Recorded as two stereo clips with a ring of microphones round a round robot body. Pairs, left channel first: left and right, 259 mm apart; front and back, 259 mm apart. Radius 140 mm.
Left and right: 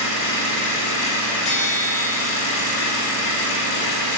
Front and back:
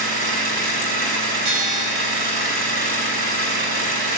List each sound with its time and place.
0.0 s an engine running: 140° left, 4.5 m
1.4 s a bell: 160° left, 6.5 m